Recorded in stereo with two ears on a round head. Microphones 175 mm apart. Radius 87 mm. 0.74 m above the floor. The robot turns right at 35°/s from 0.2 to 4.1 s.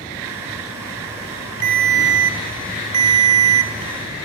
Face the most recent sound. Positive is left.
turn(degrees=-55)